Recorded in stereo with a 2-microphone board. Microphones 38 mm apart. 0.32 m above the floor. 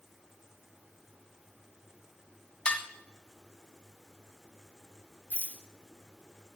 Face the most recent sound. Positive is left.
turn(degrees=-45)  # may be behind; listen again after turning